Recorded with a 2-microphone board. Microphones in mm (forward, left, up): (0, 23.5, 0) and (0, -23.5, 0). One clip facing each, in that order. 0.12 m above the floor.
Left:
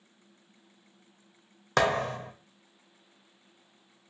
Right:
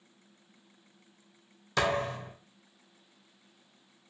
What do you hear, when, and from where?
1.8 s a thud: 65° left (ahead or behind), 0.6 m